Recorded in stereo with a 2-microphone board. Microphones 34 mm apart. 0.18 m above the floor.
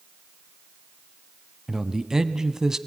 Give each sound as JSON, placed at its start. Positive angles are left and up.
{"t": 1.7, "sound": "a man speaking", "side_deg": -20, "distance_m": 1.1}